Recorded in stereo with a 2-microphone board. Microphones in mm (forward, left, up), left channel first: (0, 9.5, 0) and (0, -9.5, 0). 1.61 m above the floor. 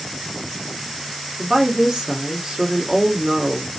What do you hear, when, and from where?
1.4 s a woman speaking: 40° right (ahead or behind), 1.2 m